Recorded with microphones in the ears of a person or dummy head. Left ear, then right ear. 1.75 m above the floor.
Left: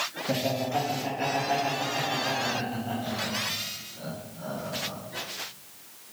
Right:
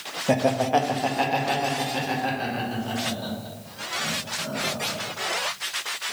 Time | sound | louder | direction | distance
0.3 | laughter | right 9 dB | 70° right (ahead or behind) | 0.7 m